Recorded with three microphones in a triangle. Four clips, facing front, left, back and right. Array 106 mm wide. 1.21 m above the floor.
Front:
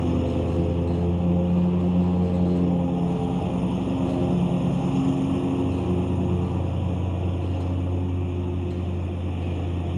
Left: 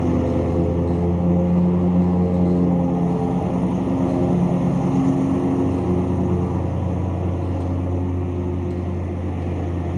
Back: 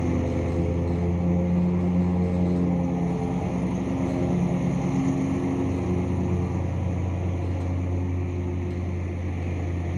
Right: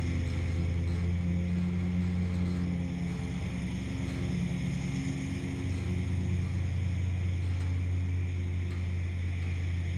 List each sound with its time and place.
0.0 s a lawn mower: 80° left